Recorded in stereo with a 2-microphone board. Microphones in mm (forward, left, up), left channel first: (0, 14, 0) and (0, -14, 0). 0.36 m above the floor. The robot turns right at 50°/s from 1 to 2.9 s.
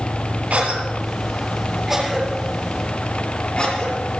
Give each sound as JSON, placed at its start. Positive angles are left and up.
{"t": 0.5, "sound": "a cough", "side_deg": -55, "distance_m": 6.5}